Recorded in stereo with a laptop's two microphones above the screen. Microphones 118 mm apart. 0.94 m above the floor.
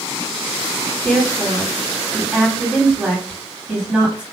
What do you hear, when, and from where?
1.1 s a woman speaking: 10° right (ahead or behind), 1.8 m